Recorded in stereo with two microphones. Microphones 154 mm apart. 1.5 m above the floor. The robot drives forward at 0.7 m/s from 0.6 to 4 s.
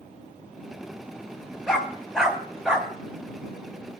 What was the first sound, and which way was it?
A dog barking, 5° right (ahead or behind).